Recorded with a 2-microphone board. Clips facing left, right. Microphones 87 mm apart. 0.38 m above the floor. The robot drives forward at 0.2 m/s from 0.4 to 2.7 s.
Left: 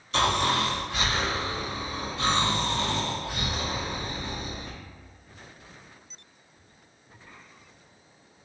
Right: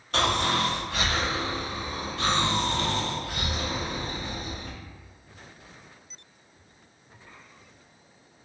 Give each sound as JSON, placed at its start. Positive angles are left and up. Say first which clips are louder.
{"t": 0.1, "sound": "snoring", "louder": "left 1 dB", "side_deg": -55, "distance_m": 1.7}